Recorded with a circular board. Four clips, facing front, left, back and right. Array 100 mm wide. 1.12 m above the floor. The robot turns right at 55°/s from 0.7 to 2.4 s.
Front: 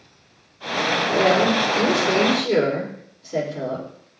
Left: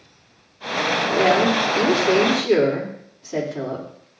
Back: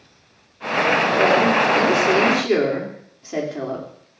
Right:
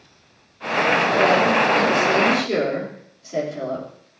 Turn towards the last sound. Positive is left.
turn(degrees=160)